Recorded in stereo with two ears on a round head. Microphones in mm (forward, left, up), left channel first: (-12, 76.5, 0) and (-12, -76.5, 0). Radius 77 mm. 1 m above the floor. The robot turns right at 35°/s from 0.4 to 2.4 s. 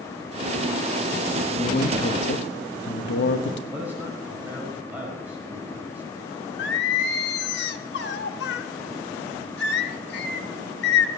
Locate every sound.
1.6 s a man speaking: 45° left (ahead or behind), 1.0 m; by 3.6 s 70° left (ahead or behind), 1.0 m
3.7 s a man speaking: 10° right (ahead or behind), 5 m
6.6 s singing: 75° left (ahead or behind), 1.1 m